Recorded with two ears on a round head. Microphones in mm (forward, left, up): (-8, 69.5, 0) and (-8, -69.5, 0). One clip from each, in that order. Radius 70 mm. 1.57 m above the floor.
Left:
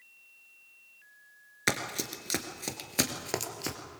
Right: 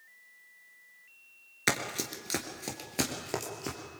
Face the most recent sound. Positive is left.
turn(degrees=35)  # may be behind; listen again after turning